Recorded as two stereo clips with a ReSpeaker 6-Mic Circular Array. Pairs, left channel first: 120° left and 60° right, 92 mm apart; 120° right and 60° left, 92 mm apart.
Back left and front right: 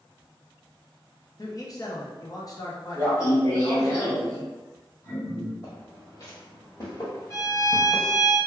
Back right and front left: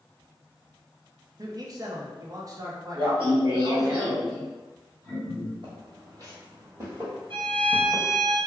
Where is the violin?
65° left, 0.9 m.